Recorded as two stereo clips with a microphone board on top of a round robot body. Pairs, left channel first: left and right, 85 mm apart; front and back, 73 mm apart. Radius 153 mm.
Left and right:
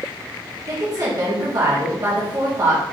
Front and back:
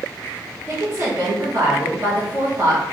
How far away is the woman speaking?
About 1.6 m.